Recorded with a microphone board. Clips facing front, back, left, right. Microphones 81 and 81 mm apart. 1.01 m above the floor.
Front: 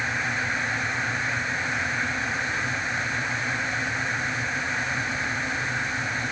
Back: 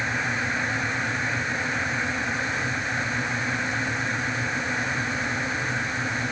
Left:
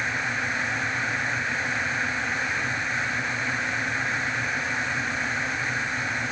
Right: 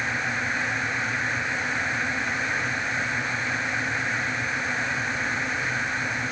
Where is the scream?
I don't hear a scream.